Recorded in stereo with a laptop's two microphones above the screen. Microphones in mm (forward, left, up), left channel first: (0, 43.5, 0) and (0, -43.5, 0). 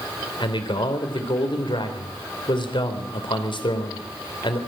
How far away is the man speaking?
About 3.5 m.